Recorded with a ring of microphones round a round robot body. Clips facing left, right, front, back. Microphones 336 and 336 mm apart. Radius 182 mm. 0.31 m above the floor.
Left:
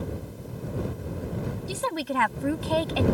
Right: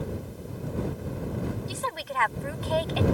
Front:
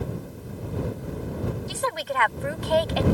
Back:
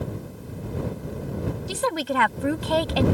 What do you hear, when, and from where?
1.7 s a woman speaking: 135° left